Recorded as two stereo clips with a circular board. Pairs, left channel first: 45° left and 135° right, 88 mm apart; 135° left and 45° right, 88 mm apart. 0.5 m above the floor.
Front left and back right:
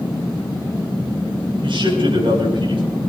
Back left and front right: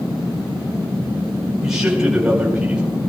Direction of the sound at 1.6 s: 130° right.